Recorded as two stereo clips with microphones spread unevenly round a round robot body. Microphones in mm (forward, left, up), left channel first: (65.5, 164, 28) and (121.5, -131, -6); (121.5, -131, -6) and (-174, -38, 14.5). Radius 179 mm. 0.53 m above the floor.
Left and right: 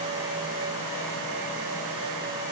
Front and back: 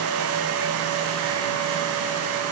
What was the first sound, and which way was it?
Only background noise.